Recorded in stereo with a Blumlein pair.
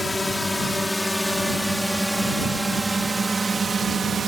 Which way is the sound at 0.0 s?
10° left.